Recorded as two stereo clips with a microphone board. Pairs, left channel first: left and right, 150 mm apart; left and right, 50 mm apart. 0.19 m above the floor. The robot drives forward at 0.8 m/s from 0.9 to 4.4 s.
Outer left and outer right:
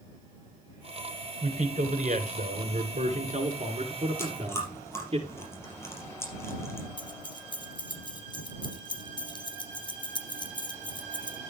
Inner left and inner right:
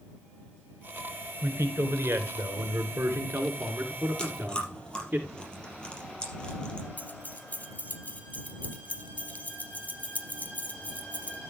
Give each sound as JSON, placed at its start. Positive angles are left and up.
{"t": 1.4, "sound": "a man speaking", "side_deg": -60, "distance_m": 2.5}
{"t": 4.2, "sound": "chewing", "side_deg": 20, "distance_m": 4.0}
{"t": 7.0, "sound": "keys jangling", "side_deg": 35, "distance_m": 2.0}